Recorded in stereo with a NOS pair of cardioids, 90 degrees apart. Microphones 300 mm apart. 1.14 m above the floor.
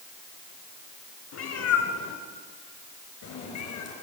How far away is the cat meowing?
About 3 m.